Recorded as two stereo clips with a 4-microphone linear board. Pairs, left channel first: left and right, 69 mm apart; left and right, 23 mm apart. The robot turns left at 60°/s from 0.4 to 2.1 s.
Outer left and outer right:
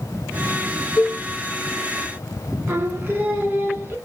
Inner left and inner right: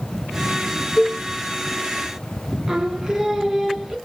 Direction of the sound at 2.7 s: 30° right (ahead or behind).